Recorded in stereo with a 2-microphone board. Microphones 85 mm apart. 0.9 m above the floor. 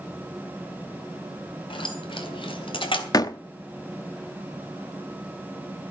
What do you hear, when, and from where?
1.7 s keys jangling: 85° left, 3.5 m
3.1 s a door slam: 50° left (ahead or behind), 0.9 m